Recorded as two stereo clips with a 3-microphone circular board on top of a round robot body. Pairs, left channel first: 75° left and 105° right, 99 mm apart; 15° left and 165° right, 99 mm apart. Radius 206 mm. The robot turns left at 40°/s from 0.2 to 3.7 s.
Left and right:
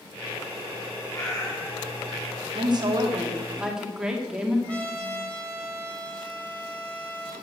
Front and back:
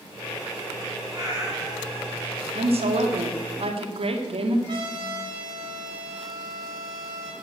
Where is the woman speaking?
140° right, 2 m; by 4.6 s 170° left, 2 m.